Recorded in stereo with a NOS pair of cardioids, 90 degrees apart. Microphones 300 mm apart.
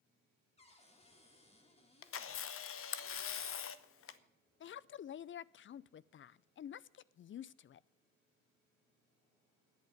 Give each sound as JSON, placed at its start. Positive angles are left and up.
{"t": 0.6, "sound": "a cupboard door", "azimuth_deg": 20, "distance_m": 2.5}
{"t": 2.0, "sound": "a camera shutter", "azimuth_deg": 45, "distance_m": 0.9}
{"t": 4.6, "sound": "a woman speaking", "azimuth_deg": 40, "distance_m": 0.5}